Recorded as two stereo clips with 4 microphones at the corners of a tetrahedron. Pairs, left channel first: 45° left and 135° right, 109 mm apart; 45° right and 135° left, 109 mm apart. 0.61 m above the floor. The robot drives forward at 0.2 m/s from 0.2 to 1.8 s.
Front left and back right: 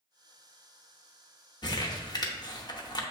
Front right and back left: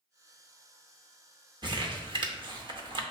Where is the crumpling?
95° left, 0.6 m.